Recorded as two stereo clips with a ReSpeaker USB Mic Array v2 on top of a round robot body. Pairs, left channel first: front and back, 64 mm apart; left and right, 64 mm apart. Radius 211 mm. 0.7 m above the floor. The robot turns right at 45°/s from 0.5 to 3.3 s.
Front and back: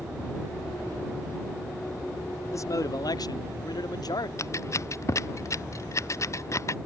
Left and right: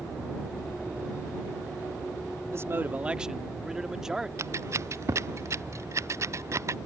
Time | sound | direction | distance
2.5 | a man speaking | 45° right | ?
4.4 | scissors | 45° right | ?